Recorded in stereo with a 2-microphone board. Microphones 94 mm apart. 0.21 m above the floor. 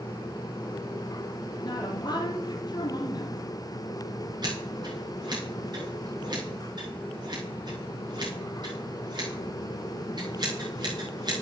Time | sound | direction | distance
1.6 | a woman speaking | 45° left (ahead or behind) | 3 m
4.4 | scissors | 50° right (ahead or behind) | 5 m